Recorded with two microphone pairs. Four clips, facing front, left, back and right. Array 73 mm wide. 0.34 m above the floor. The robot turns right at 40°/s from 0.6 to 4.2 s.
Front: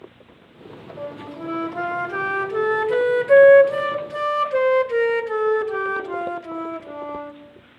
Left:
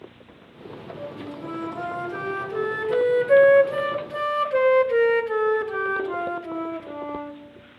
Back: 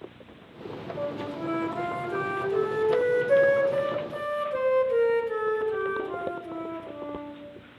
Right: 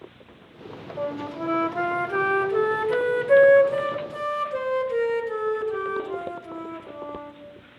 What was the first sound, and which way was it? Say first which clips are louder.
A flute: right 7 dB, even; 95° right.